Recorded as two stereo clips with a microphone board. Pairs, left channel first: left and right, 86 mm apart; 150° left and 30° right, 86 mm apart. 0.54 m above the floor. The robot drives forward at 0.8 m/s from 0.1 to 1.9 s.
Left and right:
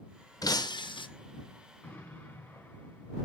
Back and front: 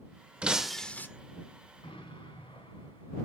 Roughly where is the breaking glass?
Ahead left.